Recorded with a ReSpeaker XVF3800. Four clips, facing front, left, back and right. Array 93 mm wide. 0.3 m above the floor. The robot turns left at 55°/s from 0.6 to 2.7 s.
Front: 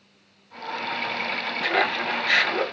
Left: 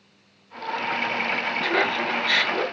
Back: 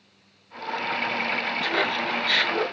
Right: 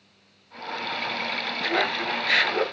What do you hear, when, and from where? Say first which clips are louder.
1.6 s laughter: left 1 dB, front 4 dB; 5° left, 1.0 m; by 2.6 s 50° right, 1.0 m